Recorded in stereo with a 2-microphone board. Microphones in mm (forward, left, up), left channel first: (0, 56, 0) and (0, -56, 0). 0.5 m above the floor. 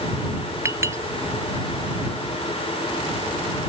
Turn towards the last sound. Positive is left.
turn(degrees=-25)  # may be behind; listen again after turning